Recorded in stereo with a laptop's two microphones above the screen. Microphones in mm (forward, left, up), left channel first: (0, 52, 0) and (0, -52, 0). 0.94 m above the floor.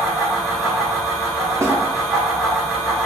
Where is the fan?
Centre (ahead or behind), 1.0 m.